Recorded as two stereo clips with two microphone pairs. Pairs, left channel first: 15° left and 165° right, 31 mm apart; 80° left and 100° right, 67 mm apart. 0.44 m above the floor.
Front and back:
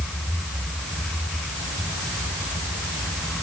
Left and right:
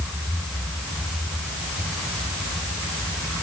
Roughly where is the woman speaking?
No woman speaking in this recording.